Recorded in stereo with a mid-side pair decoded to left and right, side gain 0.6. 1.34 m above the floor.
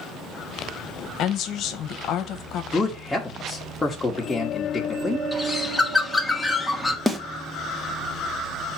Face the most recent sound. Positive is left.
turn(degrees=-10)